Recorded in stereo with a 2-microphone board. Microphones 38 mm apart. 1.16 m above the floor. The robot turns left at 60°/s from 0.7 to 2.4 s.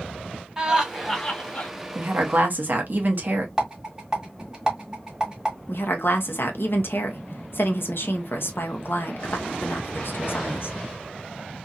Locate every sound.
0.6 s laughter: 165° right, 1.6 m; by 1.7 s 135° left, 1.6 m
1.9 s a woman speaking: 60° right (ahead or behind), 0.9 m; by 3.5 s 55° right (ahead or behind), 0.9 m
3.6 s a rattle: 15° right (ahead or behind), 1.5 m
5.7 s a woman speaking: 75° left (ahead or behind), 0.8 m